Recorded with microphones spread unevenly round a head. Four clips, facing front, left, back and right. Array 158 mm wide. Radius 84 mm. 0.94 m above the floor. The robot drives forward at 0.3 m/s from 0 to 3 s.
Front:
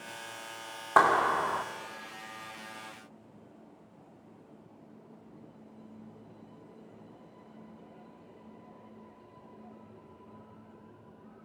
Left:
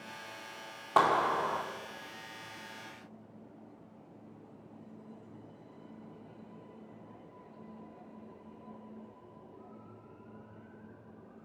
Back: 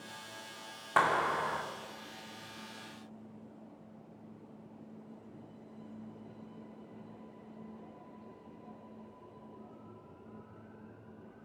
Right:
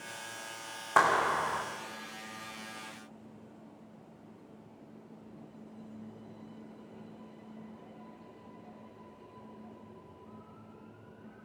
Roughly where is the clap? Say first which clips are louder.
Even, front 5 dB; ahead.